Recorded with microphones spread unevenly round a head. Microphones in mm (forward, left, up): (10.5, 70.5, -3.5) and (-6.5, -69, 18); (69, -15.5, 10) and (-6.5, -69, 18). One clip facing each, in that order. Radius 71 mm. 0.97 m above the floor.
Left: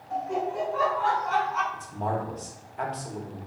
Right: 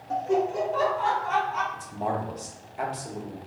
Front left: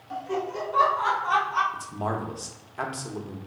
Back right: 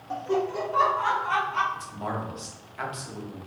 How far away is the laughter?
About 0.5 m.